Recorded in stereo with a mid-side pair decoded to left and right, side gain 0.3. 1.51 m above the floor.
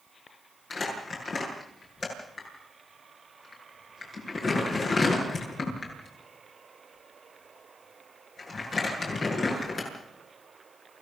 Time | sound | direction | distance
0.7 | crumpling | 60° left | 8.5 m